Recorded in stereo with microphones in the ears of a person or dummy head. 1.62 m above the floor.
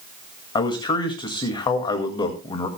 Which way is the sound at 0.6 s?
20° left (ahead or behind).